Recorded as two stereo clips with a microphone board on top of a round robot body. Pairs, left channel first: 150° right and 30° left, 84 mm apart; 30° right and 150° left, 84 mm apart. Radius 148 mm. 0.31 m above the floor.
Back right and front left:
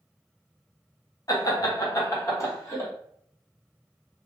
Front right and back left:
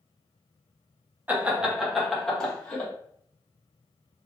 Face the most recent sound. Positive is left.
turn(degrees=-100)